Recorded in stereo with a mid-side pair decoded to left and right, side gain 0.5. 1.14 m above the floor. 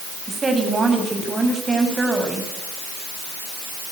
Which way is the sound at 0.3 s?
30° right.